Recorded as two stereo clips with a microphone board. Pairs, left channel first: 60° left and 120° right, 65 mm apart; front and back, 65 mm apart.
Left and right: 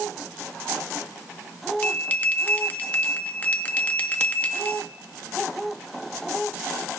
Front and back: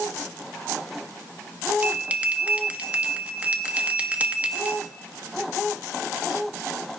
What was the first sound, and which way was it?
A bell, 120° left.